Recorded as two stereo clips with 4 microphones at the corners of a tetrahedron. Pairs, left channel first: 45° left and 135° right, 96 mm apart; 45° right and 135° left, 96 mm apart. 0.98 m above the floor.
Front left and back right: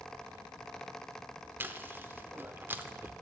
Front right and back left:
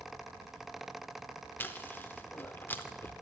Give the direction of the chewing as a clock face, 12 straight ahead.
3 o'clock.